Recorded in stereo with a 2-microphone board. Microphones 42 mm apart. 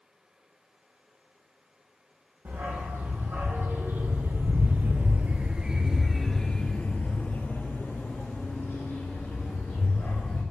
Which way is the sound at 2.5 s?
75° right (ahead or behind).